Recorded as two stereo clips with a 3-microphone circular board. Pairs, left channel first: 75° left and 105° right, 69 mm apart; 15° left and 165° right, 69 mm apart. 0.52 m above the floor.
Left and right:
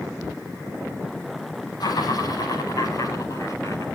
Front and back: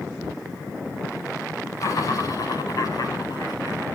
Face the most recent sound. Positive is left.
turn(degrees=30)